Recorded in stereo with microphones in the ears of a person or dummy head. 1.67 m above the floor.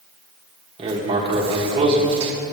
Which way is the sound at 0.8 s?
25° right (ahead or behind).